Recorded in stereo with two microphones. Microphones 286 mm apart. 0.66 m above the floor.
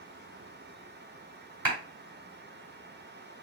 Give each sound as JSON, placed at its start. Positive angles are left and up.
{"t": 1.6, "sound": "a clap", "side_deg": -45, "distance_m": 4.0}